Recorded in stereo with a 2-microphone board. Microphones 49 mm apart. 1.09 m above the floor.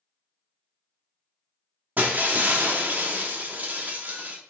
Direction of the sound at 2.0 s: 35° right (ahead or behind).